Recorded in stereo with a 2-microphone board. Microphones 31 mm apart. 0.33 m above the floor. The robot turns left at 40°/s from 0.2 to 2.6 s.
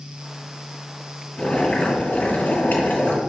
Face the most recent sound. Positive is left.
turn(degrees=95)